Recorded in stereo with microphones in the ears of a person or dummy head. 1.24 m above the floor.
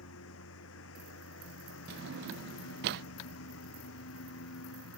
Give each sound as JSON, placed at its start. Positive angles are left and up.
{"t": 0.0, "sound": "a lawn mower", "side_deg": 75}
{"t": 1.9, "sound": "a drawer", "side_deg": -60}